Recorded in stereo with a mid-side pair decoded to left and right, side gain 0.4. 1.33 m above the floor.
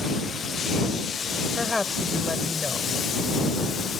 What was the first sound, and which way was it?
A woman speaking, 20° left.